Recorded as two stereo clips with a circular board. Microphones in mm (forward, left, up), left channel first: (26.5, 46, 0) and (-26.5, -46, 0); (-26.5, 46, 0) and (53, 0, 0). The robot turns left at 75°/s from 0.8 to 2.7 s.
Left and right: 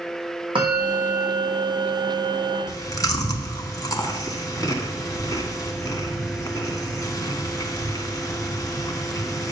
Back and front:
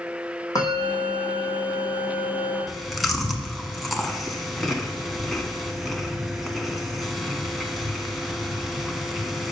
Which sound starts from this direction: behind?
A bell, at 0.6 s.